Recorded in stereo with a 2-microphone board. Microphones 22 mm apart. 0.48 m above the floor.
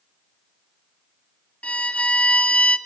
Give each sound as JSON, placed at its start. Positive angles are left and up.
{"t": 1.6, "sound": "a violin", "side_deg": 70, "distance_m": 1.9}